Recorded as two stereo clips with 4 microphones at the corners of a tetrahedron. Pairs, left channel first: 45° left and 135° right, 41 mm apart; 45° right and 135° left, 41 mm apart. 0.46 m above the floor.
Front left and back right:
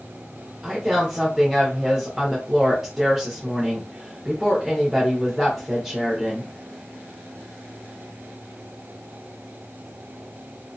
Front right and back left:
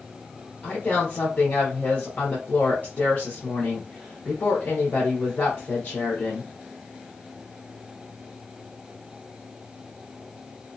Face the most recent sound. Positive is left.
turn(degrees=-50)